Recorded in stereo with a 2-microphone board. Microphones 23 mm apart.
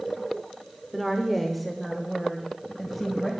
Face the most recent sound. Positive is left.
turn(degrees=5)  # may be behind; listen again after turning